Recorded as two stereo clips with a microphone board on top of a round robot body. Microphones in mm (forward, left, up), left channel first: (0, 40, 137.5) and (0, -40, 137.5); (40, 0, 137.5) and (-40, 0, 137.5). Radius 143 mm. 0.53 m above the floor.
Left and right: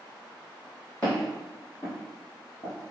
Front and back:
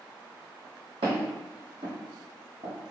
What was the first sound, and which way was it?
Footsteps, 170° left.